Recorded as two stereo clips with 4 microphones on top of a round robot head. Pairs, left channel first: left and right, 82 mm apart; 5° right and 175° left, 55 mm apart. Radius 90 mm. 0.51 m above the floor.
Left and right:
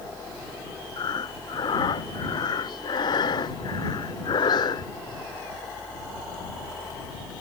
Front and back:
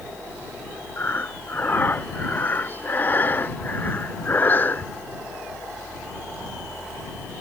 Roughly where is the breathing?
Ahead left.